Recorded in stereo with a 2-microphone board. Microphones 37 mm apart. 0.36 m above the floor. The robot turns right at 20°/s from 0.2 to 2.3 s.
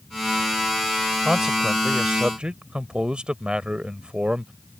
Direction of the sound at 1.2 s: 20° right (ahead or behind).